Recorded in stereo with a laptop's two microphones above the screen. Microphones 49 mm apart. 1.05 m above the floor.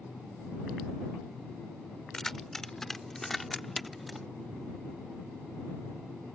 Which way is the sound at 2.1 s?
10° left (ahead or behind).